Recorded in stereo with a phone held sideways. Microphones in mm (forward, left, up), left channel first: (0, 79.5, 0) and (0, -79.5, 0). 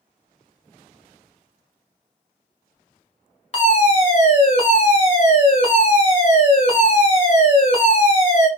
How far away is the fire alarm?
About 1.2 m.